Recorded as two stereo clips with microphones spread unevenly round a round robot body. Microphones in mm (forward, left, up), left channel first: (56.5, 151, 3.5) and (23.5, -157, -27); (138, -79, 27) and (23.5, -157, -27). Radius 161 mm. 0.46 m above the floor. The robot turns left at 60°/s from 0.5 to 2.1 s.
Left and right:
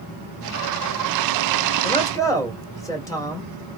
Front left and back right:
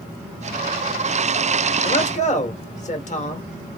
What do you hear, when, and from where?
1.8 s a man speaking: 20° left, 1.2 m; by 3.5 s straight ahead, 1.2 m